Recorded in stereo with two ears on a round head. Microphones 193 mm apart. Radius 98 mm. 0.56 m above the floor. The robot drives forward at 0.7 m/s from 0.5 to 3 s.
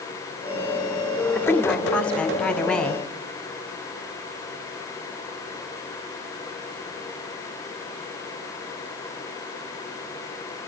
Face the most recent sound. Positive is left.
turn(degrees=5)  # may be behind; listen again after turning